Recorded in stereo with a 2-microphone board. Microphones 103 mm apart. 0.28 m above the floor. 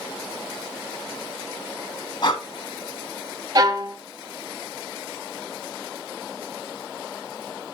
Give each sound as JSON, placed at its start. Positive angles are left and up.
{"t": 2.2, "sound": "breathing", "side_deg": 50, "distance_m": 0.9}
{"t": 3.5, "sound": "a violin", "side_deg": -40, "distance_m": 0.6}